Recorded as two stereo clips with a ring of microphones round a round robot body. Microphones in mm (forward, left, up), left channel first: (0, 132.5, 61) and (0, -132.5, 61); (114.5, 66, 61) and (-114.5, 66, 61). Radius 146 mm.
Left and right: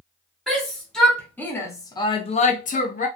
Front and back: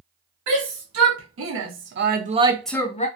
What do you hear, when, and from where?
0.5 s a shout: straight behind, 1.6 m; by 3.1 s 45° left, 0.6 m